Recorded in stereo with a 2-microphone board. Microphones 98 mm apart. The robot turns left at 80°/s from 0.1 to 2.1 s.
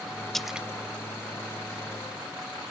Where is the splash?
5° left (ahead or behind); by 0.7 s 15° right (ahead or behind).